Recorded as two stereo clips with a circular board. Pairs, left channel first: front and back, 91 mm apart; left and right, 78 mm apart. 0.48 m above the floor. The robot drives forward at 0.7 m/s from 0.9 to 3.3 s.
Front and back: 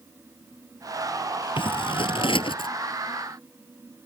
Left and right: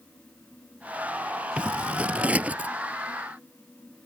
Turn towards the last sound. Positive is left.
turn(degrees=-20)